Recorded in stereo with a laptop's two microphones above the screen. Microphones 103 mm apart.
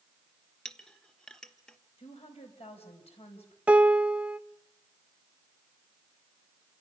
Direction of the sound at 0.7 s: 10° left (ahead or behind).